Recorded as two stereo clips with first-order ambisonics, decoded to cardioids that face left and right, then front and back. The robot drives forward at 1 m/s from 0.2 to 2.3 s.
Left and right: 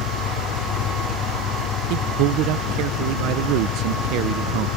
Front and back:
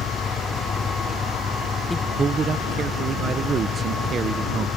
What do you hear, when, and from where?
0.0 s an engine running: 65° left
1.9 s a man speaking: 80° right; by 4.7 s 115° right